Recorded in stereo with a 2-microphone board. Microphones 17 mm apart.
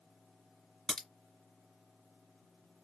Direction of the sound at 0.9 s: 30° left (ahead or behind).